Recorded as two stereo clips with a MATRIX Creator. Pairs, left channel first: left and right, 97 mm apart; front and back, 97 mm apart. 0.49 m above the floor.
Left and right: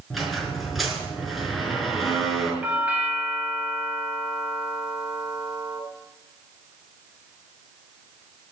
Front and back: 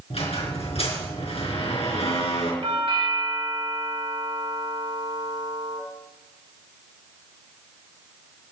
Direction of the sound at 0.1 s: Straight ahead.